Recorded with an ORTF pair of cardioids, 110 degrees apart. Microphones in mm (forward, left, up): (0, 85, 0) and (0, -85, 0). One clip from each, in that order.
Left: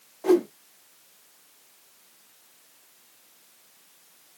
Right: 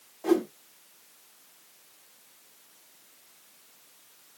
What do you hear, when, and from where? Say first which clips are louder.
0.2 s a whoosh: left 4 dB; 15° left, 0.8 m